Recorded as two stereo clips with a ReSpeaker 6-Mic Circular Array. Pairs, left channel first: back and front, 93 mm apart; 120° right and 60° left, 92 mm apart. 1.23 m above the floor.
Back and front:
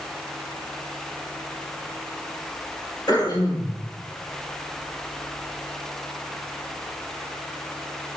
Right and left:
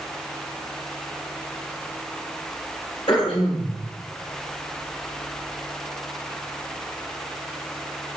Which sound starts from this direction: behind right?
Throat clearing, at 3.1 s.